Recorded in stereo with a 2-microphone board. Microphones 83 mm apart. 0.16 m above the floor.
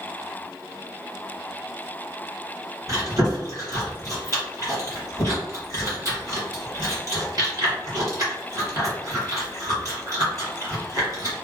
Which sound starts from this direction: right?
Chewing, at 2.9 s.